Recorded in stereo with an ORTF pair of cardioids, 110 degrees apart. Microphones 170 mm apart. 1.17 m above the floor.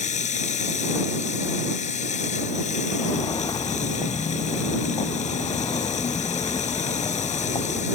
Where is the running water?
45° left.